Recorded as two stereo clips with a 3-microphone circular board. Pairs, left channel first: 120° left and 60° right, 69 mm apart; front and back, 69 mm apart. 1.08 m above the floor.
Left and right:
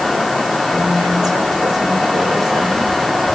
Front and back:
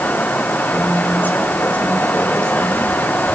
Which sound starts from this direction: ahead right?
A woman speaking, at 0.7 s.